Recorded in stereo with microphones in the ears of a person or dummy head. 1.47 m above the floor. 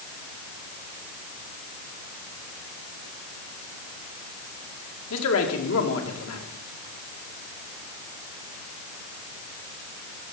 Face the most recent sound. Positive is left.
turn(degrees=75)  # may be behind; listen again after turning